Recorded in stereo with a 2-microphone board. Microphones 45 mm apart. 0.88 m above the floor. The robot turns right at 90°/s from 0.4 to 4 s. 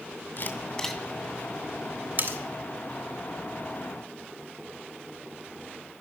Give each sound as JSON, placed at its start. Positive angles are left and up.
{"t": 0.4, "sound": "a camera shutter", "side_deg": 50, "distance_m": 2.5}
{"t": 2.2, "sound": "cutlery clinking", "side_deg": -45, "distance_m": 1.9}